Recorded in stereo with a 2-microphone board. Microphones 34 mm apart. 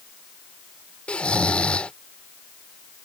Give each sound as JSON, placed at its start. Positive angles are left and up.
{"t": 1.1, "sound": "snoring", "side_deg": 35}